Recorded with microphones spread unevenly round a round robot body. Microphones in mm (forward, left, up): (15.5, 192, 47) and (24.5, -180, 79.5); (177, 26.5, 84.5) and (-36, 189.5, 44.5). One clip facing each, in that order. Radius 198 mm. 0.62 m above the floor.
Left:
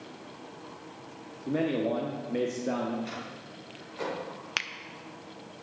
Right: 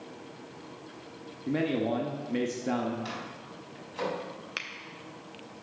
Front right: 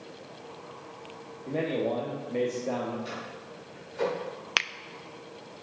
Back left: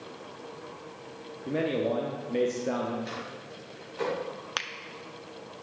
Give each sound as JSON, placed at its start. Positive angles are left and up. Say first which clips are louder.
{"t": 1.5, "sound": "a man speaking", "louder": "even, back left 1 dB", "azimuth_deg": -160, "distance_m": 0.9}
{"t": 3.0, "sound": "a microwave", "louder": "even, back left 1 dB", "azimuth_deg": -120, "distance_m": 5.0}
{"t": 4.6, "sound": "a finger snap", "louder": "left 1 dB, front right 2 dB", "azimuth_deg": 25, "distance_m": 0.6}